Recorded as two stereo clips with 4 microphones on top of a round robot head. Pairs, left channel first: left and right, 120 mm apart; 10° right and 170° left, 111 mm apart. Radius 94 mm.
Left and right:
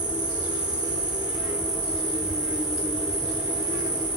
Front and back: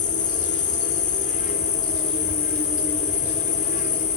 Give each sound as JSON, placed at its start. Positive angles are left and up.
{"t": 0.0, "sound": "an insect", "azimuth_deg": -10, "distance_m": 1.4}